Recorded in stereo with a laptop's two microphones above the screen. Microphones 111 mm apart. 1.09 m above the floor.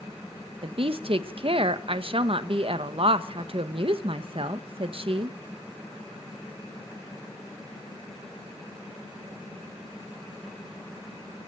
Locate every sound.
0.6 s a woman speaking: 55° right (ahead or behind), 1.1 m